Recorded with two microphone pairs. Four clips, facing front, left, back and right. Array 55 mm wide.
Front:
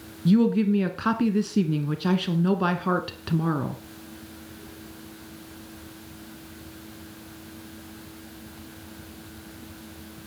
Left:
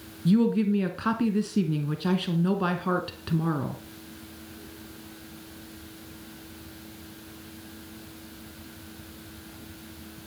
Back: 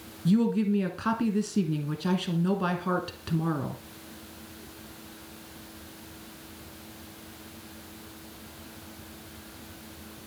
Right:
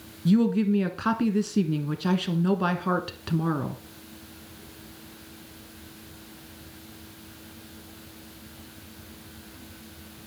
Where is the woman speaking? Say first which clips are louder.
Right 1 dB, front 4 dB; 20° right, 1.1 m.